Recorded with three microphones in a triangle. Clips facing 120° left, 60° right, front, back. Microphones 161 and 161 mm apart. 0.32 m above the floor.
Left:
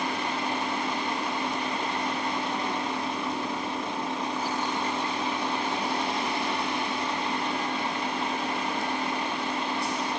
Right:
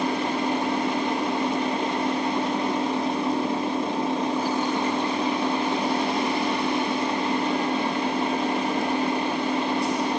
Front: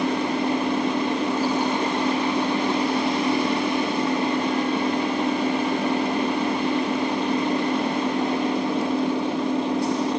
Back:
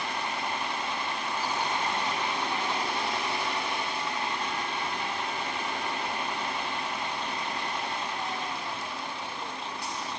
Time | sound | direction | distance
0.0 | an engine running | straight ahead | ?